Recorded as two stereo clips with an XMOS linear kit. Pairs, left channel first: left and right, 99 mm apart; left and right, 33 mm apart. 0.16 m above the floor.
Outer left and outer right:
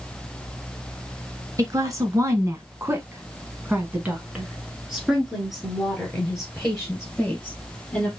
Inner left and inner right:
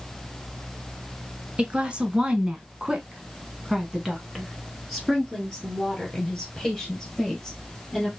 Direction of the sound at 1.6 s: 35° right (ahead or behind).